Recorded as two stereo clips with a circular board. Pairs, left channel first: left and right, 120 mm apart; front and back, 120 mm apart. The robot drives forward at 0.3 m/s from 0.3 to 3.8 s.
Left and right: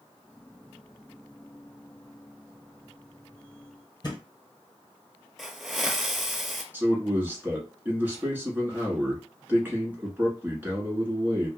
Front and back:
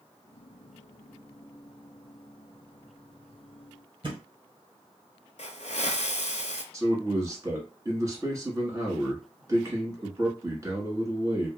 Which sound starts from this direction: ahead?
A hiss, at 5.4 s.